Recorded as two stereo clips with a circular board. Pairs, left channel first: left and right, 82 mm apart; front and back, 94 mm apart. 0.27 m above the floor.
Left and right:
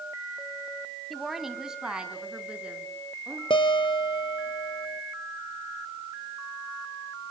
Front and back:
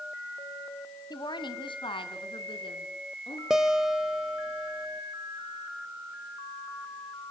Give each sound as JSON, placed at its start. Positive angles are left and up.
{"t": 1.1, "sound": "a woman speaking", "azimuth_deg": 0, "distance_m": 1.9}
{"t": 3.5, "sound": "a guitar", "azimuth_deg": 95, "distance_m": 1.4}